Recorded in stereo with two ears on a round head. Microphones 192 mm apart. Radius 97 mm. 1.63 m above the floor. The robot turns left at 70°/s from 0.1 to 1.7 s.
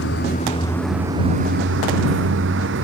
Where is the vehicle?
55° left; by 2.8 s 55° right.